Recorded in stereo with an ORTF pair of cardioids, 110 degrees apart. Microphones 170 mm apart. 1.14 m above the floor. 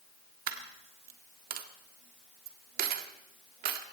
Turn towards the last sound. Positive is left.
turn(degrees=-65)